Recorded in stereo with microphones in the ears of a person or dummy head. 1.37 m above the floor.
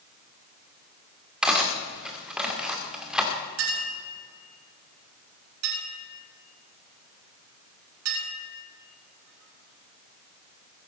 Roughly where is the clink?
Right.